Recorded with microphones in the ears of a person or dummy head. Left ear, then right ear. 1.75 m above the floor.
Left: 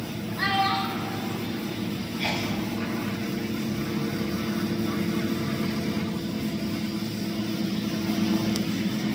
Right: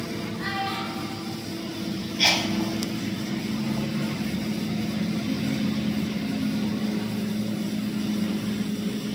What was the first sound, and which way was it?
A child speaking, 80° left.